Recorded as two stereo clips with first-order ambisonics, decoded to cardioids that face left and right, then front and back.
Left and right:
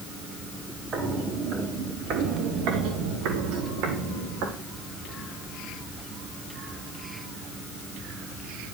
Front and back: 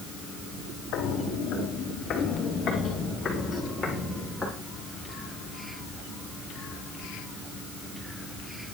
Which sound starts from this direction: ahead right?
Footsteps, at 0.9 s.